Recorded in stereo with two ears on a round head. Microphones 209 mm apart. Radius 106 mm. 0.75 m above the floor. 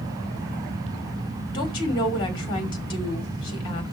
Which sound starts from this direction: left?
A woman speaking, at 1.5 s.